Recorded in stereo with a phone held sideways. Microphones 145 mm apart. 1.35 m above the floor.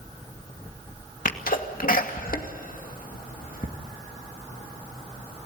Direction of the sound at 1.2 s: 75° left (ahead or behind).